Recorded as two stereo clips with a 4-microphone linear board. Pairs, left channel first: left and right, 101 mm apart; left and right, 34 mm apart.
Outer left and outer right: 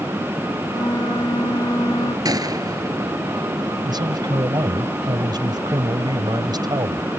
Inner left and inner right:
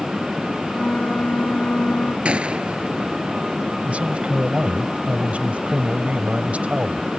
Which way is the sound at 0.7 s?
40° left (ahead or behind).